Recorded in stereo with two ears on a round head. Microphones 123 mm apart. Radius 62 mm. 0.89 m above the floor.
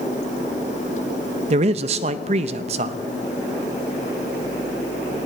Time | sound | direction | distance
1.5 | a man speaking | 45° right (ahead or behind) | 0.7 m